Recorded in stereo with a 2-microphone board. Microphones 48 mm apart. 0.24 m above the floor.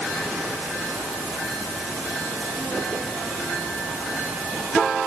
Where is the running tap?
I don't hear a running tap.